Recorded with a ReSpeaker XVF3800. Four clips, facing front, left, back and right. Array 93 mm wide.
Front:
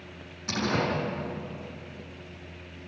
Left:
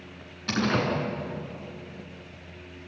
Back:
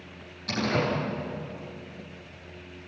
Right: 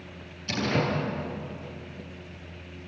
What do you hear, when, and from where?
0.5 s a door slam: 70° left, 6.5 m